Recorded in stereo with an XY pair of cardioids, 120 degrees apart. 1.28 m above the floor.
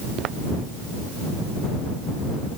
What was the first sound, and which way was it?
Footsteps, 65° right.